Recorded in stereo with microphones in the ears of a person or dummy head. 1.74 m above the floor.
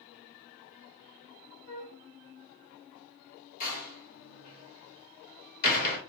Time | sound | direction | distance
1.7 | a flute | 40° left (ahead or behind) | 1.9 m
3.6 | a door slam | 50° left (ahead or behind) | 1.7 m